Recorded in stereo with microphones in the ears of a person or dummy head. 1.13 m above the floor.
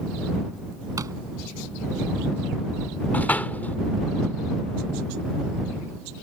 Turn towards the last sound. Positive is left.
turn(degrees=15)  # may be behind; listen again after turning